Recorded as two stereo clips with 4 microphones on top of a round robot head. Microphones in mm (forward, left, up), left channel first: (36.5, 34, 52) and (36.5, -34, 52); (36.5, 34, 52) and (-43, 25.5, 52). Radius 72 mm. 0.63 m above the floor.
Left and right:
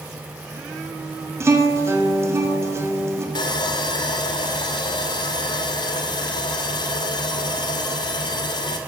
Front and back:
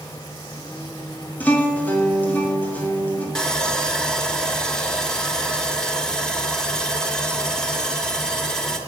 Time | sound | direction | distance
1.4 | a guitar | 60° right | 1.7 m
3.4 | sawing | 90° left | 1.2 m